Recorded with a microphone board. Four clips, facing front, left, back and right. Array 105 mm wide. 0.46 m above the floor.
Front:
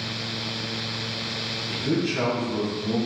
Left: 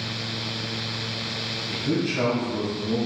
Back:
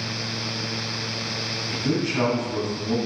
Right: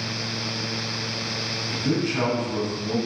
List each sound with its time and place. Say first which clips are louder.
1.7 s a man speaking: right 1 dB, even; 145° right, 3.5 m